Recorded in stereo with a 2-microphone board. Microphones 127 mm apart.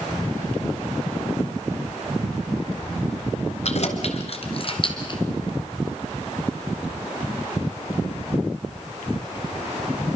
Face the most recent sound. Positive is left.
turn(degrees=35)  # may be behind; listen again after turning